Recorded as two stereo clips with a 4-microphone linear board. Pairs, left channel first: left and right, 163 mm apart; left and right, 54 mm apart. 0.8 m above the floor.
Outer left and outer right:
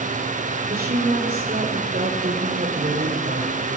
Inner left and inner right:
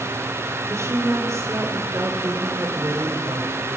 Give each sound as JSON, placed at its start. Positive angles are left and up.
{"t": 0.7, "sound": "a woman speaking", "side_deg": -65, "distance_m": 3.5}